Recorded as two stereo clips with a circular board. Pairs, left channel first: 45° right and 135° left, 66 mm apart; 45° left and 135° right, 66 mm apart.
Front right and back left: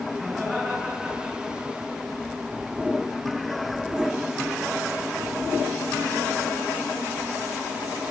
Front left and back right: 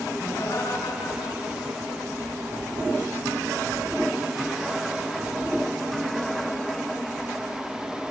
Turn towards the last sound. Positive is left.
turn(degrees=55)